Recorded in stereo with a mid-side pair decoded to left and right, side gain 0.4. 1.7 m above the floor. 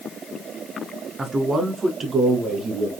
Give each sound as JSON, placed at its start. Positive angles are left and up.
{"t": 1.2, "sound": "a man speaking", "azimuth_deg": -30, "distance_m": 2.0}